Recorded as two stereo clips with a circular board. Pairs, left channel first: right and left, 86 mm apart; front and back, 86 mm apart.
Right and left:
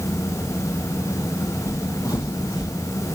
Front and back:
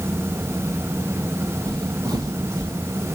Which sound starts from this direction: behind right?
Footsteps, at 1.7 s.